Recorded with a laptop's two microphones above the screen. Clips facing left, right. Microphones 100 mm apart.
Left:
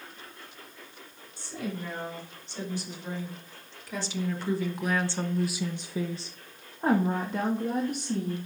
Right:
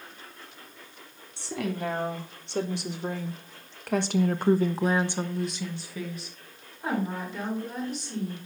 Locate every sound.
1.4 s a woman speaking: 80° right, 2.5 m; by 8.4 s 55° left (ahead or behind), 2 m